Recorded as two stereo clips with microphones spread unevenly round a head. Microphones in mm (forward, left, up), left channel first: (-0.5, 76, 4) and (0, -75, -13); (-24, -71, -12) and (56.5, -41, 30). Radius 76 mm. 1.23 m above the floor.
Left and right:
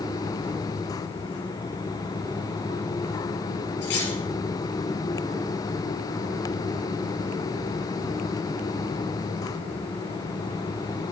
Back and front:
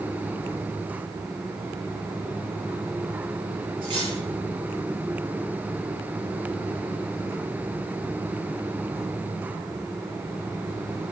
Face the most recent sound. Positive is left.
turn(degrees=80)